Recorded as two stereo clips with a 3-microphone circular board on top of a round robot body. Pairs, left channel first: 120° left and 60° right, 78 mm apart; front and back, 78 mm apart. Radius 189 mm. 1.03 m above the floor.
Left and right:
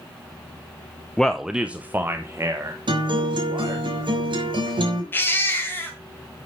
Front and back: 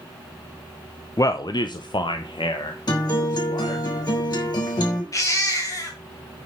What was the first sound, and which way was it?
A man speaking, 40° left.